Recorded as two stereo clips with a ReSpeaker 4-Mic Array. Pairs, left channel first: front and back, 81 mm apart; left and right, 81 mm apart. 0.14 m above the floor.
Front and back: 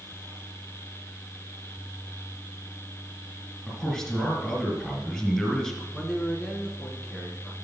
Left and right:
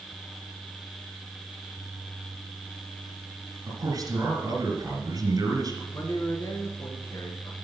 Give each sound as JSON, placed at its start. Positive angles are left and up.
{"t": 3.7, "sound": "a man speaking", "azimuth_deg": -85, "distance_m": 2.5}
{"t": 5.9, "sound": "a man speaking", "azimuth_deg": 85, "distance_m": 1.8}